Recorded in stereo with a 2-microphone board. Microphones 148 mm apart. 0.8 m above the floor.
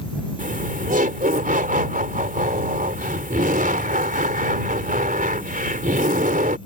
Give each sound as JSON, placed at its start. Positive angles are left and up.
{"t": 0.4, "sound": "laughter", "side_deg": -70}